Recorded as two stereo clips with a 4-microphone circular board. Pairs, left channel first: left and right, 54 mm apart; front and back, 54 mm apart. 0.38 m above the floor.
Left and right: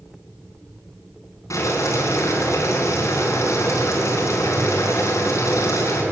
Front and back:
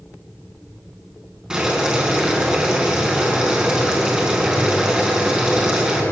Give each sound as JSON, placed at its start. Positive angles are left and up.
{"t": 1.5, "sound": "boiling", "azimuth_deg": 105, "distance_m": 4.5}